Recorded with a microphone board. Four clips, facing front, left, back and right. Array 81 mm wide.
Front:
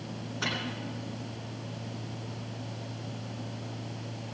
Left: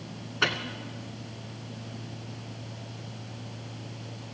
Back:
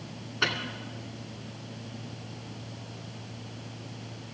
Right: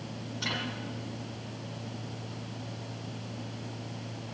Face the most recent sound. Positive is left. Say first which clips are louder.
# left 8 dB, back 4 dB
turn(degrees=115)